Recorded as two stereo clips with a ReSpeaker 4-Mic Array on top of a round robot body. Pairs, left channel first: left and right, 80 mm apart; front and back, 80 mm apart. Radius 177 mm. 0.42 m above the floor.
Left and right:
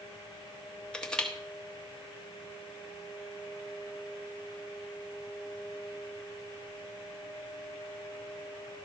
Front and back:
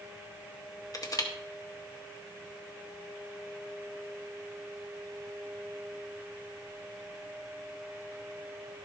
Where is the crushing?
15° left, 2 m.